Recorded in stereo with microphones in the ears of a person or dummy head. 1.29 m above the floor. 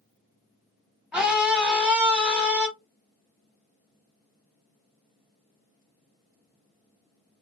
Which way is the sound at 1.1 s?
5° right (ahead or behind).